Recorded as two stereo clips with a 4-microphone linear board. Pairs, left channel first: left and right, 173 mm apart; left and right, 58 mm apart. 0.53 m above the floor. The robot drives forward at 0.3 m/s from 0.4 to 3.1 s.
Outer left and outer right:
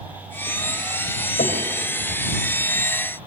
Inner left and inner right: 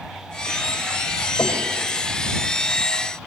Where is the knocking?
55° left (ahead or behind), 3 m.